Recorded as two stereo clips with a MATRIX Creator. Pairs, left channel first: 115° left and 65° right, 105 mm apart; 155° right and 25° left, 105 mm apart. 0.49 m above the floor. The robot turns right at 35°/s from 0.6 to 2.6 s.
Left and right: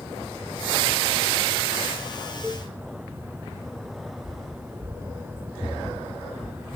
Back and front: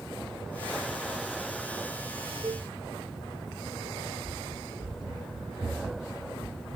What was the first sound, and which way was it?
A cowbell, 25° left.